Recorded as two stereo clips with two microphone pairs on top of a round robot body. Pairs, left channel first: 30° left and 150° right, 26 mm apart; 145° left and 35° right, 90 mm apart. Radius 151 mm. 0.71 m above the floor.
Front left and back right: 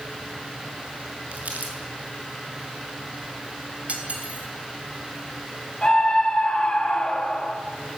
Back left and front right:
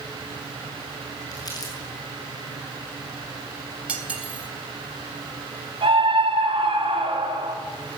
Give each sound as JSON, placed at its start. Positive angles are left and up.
{"t": 1.3, "sound": "crumpling", "azimuth_deg": -165, "distance_m": 6.5}
{"t": 3.9, "sound": "cutlery clinking", "azimuth_deg": -110, "distance_m": 3.0}
{"t": 5.8, "sound": "a scream", "azimuth_deg": -40, "distance_m": 4.5}